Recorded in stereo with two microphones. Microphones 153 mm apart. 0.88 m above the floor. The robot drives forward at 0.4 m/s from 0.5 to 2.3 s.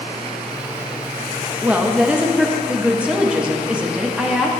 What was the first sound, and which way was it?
A woman speaking, 10° right (ahead or behind).